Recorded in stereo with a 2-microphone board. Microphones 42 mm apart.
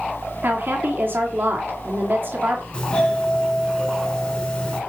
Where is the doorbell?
30° left (ahead or behind), 4.5 m.